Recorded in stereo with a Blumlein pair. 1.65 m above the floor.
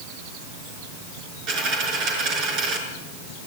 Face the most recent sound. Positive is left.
turn(degrees=-40)